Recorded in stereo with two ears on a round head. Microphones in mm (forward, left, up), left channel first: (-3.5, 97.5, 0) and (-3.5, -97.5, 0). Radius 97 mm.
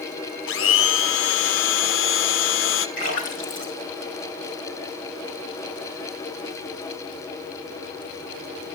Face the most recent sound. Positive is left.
turn(degrees=35)  # may be behind; listen again after turning